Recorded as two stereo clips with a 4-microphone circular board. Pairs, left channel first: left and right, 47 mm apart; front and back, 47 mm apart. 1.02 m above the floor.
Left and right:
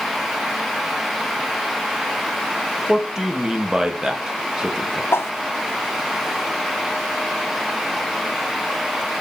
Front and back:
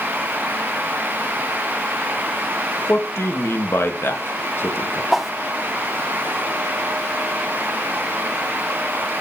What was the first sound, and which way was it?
A man speaking, 15° right.